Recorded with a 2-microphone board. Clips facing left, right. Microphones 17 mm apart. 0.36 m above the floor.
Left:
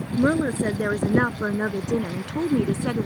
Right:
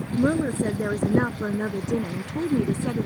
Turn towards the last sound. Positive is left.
turn(degrees=50)  # may be behind; listen again after turning